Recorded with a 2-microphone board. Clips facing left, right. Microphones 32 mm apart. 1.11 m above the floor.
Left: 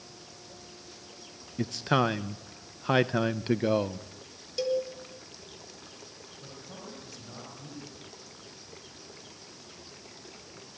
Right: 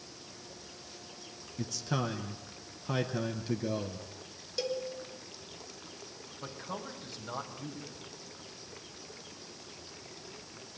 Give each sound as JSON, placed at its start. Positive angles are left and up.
{"t": 1.6, "sound": "a man speaking", "side_deg": 45, "distance_m": 0.7}
{"t": 4.6, "sound": "a cowbell", "side_deg": 0, "distance_m": 4.0}
{"t": 6.4, "sound": "a man speaking", "side_deg": -35, "distance_m": 6.0}